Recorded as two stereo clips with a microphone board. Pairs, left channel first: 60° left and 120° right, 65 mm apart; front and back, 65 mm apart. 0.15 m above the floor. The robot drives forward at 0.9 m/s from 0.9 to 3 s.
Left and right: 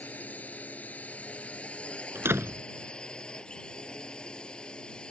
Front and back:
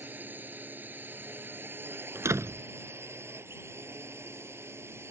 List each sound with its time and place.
0.0 s a drone: 125° left; by 5.1 s 135° left
2.1 s a door slam: 155° right; by 2.6 s 160° right